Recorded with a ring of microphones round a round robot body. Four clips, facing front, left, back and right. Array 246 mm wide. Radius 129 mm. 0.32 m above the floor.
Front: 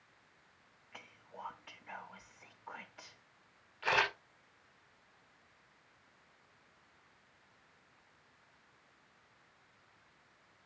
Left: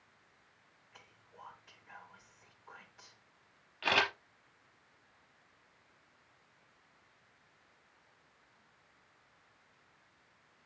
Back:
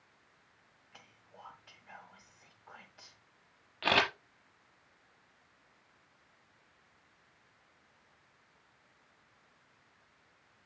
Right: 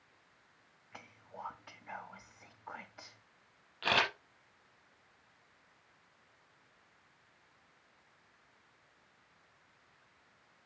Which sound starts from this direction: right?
Whispering, at 0.9 s.